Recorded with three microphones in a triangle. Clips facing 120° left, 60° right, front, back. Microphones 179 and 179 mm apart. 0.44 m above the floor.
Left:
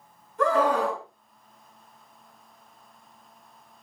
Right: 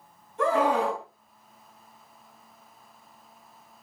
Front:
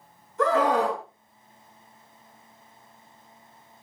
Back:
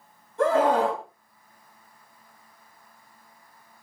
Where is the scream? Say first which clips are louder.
Left 1 dB, back 1 dB; 120° right, 3.5 m.